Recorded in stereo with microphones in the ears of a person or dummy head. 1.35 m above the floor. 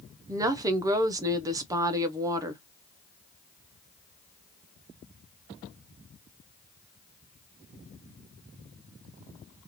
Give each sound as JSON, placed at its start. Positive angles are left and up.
{"t": 0.3, "sound": "a woman speaking", "side_deg": -15, "distance_m": 0.5}